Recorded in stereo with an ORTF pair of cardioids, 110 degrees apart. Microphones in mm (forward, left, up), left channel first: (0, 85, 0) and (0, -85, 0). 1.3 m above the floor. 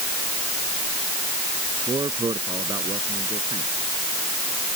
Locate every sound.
1.9 s a man speaking: 25° right